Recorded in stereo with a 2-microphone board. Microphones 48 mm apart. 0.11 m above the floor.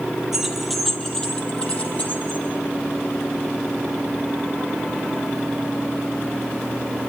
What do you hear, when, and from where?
0.3 s keys jangling: 10° right (ahead or behind), 2 m; by 2.4 s 35° left (ahead or behind), 3.5 m